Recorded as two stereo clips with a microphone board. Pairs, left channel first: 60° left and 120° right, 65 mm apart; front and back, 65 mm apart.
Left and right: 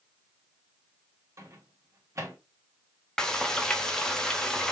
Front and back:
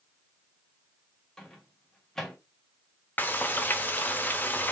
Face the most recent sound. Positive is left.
turn(degrees=-5)